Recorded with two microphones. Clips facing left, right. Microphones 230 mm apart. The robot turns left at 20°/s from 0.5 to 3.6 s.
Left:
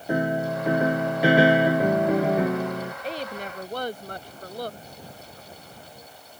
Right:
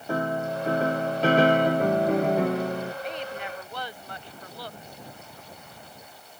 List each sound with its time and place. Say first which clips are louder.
0.1 s a piano: left 3 dB; 15° left (ahead or behind); by 2.9 s centre (ahead or behind)
3.0 s a woman speaking: left 1 dB; 30° left (ahead or behind); by 4.8 s 40° left (ahead or behind)